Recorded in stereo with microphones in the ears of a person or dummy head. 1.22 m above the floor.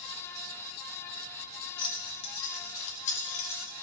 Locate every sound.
1.8 s keys jangling: 30° left (ahead or behind), 1.9 m; by 3.8 s 50° left (ahead or behind), 4 m